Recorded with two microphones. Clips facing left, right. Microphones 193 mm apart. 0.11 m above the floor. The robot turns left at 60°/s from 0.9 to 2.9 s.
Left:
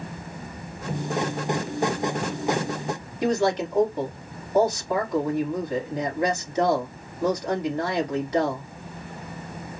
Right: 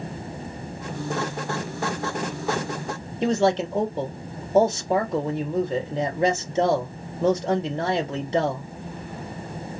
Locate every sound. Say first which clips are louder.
3.2 s a man speaking: right 2 dB; 25° right (ahead or behind), 2.5 m